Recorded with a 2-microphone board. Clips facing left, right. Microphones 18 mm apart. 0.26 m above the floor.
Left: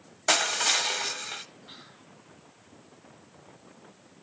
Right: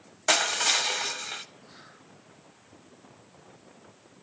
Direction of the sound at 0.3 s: 5° right (ahead or behind).